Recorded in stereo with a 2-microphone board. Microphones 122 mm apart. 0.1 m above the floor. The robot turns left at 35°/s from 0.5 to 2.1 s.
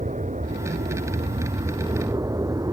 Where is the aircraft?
95° right; by 2.7 s 150° right.